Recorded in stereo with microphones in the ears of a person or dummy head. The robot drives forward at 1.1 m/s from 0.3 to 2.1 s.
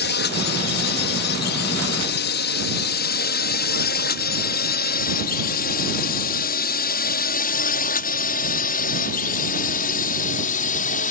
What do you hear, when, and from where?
0.0 s a drone: 55° left (ahead or behind); by 11.1 s 45° left (ahead or behind)